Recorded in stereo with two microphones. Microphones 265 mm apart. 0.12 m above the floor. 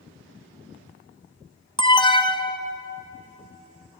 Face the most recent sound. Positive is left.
turn(degrees=20)  # may be behind; listen again after turning